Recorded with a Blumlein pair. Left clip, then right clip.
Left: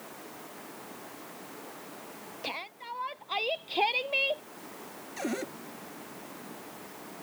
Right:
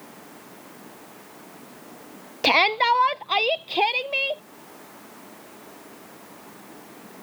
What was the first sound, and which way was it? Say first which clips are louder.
A shout: right 21 dB; 55° right.